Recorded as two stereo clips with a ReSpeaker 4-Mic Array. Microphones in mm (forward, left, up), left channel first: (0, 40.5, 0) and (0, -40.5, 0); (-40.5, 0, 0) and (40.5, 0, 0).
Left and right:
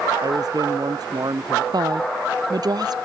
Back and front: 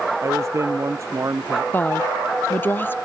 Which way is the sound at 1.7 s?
115° right.